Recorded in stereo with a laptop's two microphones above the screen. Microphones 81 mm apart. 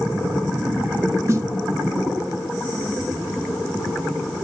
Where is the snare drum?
40° right (ahead or behind), 1.3 m.